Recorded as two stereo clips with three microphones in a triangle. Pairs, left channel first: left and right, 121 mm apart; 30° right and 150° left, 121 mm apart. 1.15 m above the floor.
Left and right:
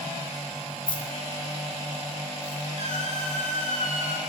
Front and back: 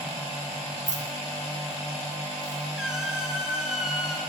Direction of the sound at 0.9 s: 140° left.